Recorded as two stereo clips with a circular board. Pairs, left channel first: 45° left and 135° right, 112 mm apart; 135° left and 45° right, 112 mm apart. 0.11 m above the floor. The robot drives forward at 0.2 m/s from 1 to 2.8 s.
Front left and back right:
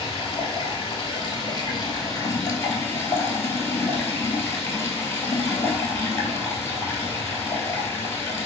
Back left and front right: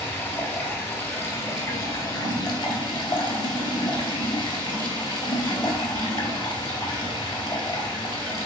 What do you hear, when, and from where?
0.0 s running water: 70° left, 0.7 m; by 8.5 s 105° left, 0.7 m